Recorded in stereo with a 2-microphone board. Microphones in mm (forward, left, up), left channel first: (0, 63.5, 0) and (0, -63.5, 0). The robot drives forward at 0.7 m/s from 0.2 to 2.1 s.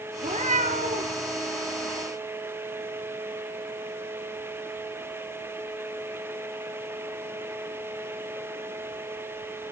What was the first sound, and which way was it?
A cat meowing, 60° right (ahead or behind).